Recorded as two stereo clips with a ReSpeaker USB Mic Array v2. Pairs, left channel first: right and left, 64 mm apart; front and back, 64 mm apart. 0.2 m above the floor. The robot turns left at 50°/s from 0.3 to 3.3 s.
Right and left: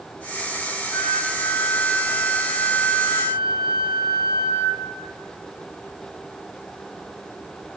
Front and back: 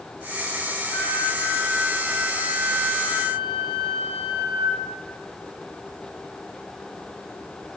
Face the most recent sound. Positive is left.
turn(degrees=-70)